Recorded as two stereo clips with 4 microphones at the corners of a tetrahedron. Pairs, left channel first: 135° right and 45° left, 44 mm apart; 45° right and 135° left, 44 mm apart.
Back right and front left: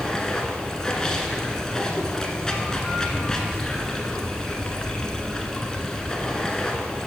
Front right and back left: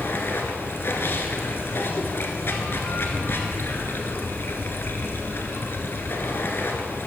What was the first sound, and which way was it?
Running water, 60° right.